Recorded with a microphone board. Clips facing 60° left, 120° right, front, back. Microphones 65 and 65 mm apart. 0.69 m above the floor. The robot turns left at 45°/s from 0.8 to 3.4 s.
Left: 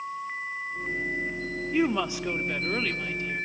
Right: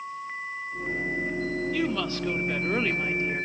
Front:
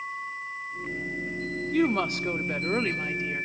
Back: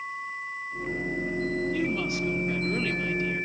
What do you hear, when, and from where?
1.7 s a woman speaking: 5° left, 1.4 m; by 3.5 s 70° right, 1.4 m